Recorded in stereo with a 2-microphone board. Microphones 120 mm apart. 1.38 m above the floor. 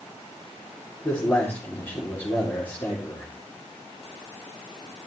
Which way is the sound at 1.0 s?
20° left (ahead or behind).